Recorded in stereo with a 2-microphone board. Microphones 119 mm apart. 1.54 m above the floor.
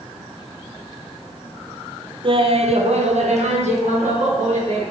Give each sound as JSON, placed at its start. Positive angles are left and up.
{"t": 2.2, "sound": "laughter", "side_deg": -45, "distance_m": 0.8}